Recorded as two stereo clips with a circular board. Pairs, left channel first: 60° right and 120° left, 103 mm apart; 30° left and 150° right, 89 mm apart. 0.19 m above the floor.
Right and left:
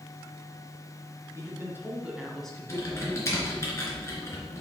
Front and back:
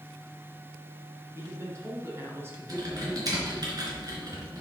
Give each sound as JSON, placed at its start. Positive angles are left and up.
{"t": 1.4, "sound": "a man speaking", "azimuth_deg": 165, "distance_m": 2.5}
{"t": 2.7, "sound": "typing on a keyboard", "azimuth_deg": -115, "distance_m": 3.0}